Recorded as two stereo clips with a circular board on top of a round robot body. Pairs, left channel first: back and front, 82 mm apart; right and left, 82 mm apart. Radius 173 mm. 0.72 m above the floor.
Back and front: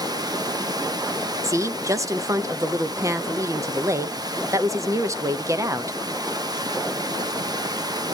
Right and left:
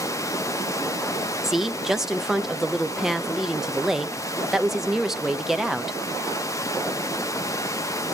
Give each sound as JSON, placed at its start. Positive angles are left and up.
{"t": 0.0, "sound": "running water", "azimuth_deg": -40, "distance_m": 1.1}
{"t": 1.4, "sound": "a woman speaking", "azimuth_deg": 10, "distance_m": 1.0}